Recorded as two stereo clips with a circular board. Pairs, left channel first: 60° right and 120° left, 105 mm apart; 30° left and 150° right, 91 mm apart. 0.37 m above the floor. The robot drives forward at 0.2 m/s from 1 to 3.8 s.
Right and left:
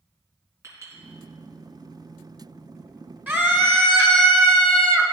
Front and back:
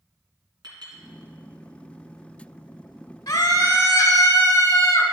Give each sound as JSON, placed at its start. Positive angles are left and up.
{"t": 0.6, "sound": "a clink", "azimuth_deg": 180, "distance_m": 2.0}
{"t": 3.3, "sound": "a scream", "azimuth_deg": 55, "distance_m": 1.2}